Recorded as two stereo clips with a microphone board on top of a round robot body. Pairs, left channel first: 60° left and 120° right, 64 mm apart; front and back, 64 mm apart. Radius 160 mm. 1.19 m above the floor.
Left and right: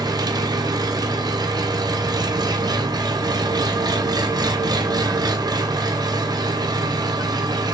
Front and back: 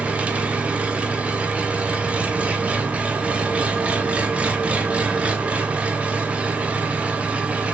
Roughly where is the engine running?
Right.